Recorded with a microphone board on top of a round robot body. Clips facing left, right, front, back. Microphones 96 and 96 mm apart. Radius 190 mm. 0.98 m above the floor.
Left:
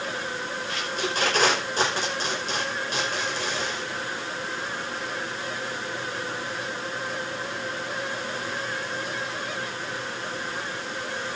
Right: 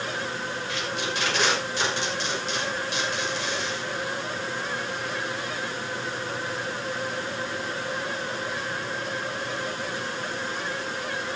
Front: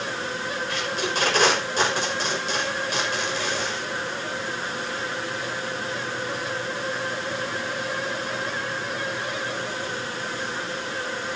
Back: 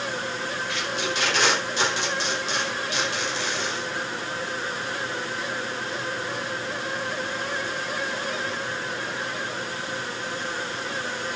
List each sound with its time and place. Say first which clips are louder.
0.7 s tape being pulled: left 2 dB, front 2 dB; 45° left, 6 m